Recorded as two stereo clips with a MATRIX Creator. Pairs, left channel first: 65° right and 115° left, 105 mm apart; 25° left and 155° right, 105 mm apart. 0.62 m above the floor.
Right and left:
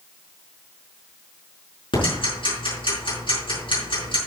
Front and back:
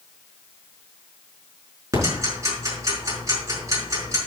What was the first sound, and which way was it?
Ticking, 100° right.